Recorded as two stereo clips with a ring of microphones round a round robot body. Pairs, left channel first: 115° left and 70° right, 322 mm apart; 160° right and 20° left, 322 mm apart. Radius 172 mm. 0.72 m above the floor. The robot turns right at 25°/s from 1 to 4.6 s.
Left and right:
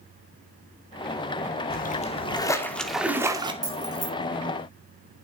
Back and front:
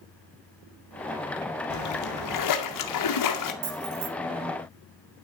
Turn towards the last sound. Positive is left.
turn(degrees=35)